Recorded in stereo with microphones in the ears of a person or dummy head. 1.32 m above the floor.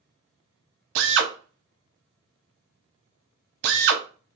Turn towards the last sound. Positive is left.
turn(degrees=-70)  # may be behind; listen again after turning